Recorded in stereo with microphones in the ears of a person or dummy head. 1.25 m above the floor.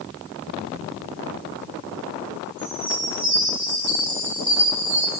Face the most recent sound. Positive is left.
turn(degrees=-40)  # may be behind; listen again after turning